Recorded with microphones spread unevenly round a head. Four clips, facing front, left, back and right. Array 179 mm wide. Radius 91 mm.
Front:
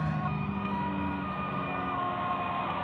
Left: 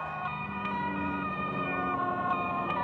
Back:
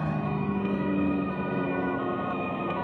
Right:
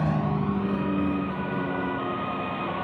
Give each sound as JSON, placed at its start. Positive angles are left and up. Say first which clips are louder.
{"t": 0.0, "sound": "a vehicle", "louder": "right 9 dB, back 3 dB", "azimuth_deg": -100}